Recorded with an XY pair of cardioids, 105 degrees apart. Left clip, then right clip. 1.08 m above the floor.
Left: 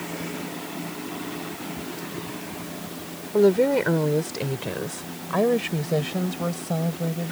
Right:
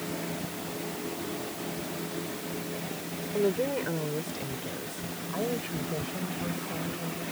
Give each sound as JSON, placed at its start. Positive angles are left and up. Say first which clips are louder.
{"t": 3.3, "sound": "a woman speaking", "louder": "left 10 dB", "azimuth_deg": 60}